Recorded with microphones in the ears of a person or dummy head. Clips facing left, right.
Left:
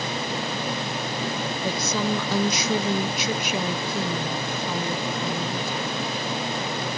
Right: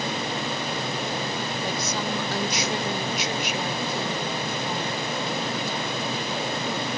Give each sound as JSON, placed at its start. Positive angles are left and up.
{"t": 1.6, "sound": "a woman speaking", "side_deg": 65, "distance_m": 0.9}